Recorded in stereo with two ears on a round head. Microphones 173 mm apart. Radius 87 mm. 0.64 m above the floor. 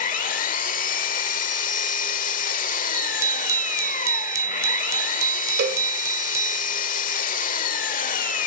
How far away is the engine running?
About 1.3 m.